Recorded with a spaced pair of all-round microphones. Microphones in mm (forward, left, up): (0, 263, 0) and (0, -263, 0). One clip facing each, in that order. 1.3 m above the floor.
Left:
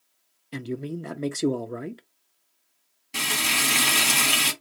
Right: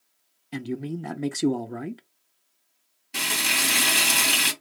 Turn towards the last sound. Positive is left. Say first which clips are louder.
# left 1 dB
turn(degrees=10)  # may be behind; listen again after turning